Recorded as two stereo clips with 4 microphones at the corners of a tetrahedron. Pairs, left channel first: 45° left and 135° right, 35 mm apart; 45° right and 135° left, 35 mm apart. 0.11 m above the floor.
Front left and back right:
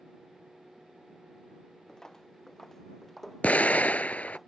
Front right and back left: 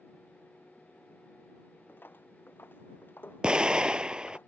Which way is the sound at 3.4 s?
75° left.